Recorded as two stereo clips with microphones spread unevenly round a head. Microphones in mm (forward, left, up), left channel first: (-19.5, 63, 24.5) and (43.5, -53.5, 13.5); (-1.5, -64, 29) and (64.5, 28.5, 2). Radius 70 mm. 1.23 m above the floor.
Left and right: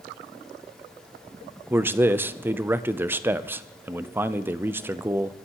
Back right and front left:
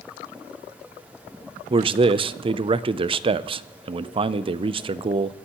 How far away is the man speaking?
About 0.5 m.